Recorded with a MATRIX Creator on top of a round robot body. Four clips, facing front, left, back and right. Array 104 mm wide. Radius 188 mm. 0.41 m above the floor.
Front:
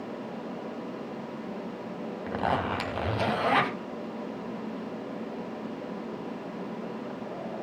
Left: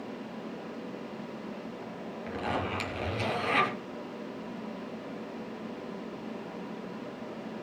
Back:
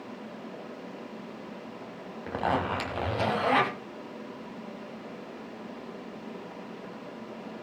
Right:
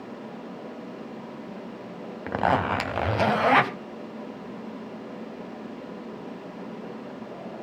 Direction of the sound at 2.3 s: 90° right.